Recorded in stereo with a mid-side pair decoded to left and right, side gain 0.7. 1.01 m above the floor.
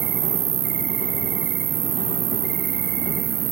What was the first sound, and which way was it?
An insect, 70° right.